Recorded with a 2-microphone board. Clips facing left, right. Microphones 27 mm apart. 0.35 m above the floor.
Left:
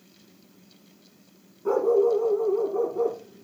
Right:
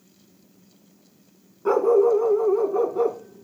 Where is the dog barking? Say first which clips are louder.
Right 3 dB; 60° right (ahead or behind), 1.7 m.